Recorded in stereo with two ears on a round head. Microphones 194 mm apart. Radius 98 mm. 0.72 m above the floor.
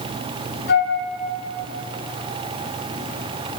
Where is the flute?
50° left (ahead or behind), 4.5 m.